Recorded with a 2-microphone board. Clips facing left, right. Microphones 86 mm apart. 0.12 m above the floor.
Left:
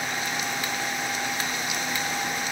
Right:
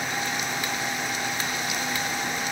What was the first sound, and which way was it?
Only background noise.